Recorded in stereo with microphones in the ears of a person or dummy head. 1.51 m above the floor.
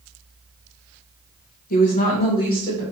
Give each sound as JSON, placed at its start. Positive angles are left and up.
{"t": 1.7, "sound": "a woman speaking", "side_deg": 45, "distance_m": 1.0}